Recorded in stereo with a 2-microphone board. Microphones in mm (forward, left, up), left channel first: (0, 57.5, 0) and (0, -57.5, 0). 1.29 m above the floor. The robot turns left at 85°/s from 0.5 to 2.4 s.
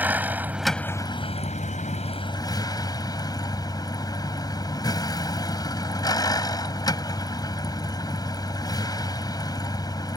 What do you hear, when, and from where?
0.0 s a vehicle: 165° right; by 10.2 s 30° left